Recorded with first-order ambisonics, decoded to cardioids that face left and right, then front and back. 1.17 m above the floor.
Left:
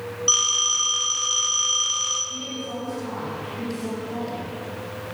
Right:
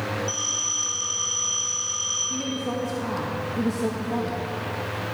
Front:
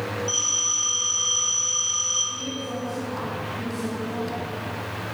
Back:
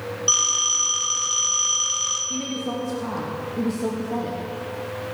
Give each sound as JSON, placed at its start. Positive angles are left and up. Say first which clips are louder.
{"t": 0.3, "sound": "a phone ringing", "louder": "left 10 dB, back 5 dB", "azimuth_deg": 135, "distance_m": 3.0}
{"t": 2.3, "sound": "a woman speaking", "louder": "right 3 dB, back 2 dB", "azimuth_deg": -135, "distance_m": 1.7}